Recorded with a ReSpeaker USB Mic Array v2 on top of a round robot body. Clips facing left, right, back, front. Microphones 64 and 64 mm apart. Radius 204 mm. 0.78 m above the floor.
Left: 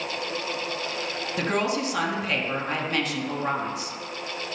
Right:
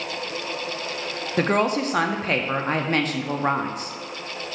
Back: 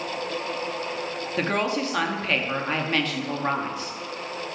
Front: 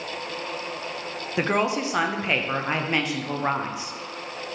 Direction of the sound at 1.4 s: 70° right.